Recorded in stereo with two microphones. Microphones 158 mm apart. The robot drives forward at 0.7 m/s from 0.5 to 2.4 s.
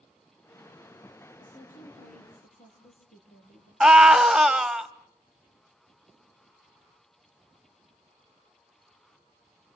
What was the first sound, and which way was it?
A woman speaking, 75° left (ahead or behind).